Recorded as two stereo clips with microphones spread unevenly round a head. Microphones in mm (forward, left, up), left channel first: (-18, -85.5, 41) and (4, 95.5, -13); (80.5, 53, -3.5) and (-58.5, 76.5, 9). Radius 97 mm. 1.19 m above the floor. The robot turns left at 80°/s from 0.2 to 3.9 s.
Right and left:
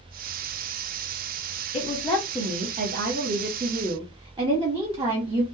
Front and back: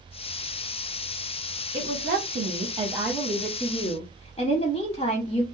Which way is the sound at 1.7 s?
165° right.